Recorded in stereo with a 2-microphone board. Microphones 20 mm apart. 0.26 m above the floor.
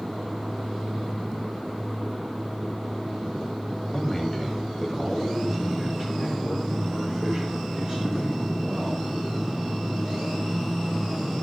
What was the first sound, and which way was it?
A man speaking, 10° left (ahead or behind).